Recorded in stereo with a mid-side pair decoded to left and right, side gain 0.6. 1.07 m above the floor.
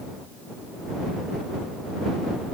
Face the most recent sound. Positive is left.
No sound to turn to.